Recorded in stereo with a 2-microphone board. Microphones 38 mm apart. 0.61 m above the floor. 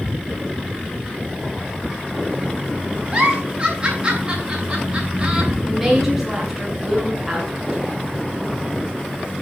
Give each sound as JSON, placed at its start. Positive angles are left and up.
{"t": 3.1, "sound": "a giggle", "side_deg": -25, "distance_m": 8.0}
{"t": 5.7, "sound": "a woman speaking", "side_deg": -5, "distance_m": 6.0}